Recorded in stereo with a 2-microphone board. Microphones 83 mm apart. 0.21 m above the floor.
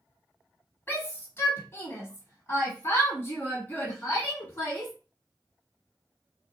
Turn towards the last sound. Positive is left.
turn(degrees=25)  # may be behind; listen again after turning